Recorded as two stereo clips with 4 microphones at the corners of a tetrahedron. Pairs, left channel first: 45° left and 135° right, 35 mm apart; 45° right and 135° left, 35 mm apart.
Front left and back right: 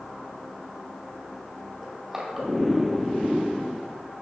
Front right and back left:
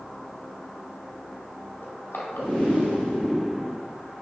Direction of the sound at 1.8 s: 60° right.